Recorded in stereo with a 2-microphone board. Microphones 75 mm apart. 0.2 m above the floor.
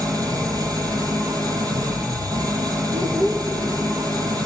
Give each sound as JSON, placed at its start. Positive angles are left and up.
{"t": 0.0, "sound": "an engine running", "side_deg": -55, "distance_m": 2.0}
{"t": 2.9, "sound": "a child speaking", "side_deg": -55, "distance_m": 4.0}